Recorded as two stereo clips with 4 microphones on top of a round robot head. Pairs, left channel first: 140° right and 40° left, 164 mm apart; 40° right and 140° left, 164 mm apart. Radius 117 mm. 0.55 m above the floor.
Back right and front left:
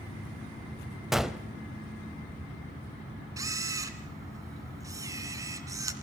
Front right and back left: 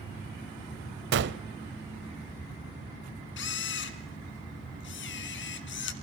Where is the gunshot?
125° left, 0.8 m.